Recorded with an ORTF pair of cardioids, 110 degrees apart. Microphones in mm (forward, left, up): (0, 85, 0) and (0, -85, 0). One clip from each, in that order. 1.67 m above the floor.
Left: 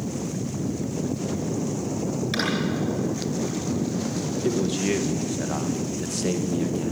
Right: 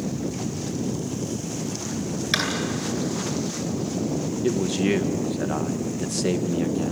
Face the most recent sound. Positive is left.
turn(degrees=-15)